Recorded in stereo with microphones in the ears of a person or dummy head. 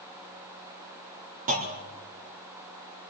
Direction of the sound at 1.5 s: 45° right (ahead or behind).